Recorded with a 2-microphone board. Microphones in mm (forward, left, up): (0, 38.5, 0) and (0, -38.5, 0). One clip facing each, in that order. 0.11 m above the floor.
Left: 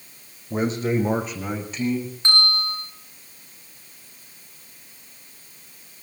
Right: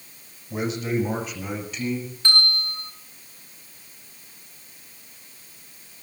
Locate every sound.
0.5 s a man speaking: 40° left (ahead or behind), 5 m; by 2.1 s 35° left (ahead or behind), 7 m
2.2 s a bell: 35° left (ahead or behind), 9 m